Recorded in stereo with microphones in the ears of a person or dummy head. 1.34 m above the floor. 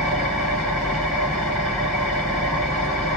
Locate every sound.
0.0 s an engine running: centre (ahead or behind), 1.0 m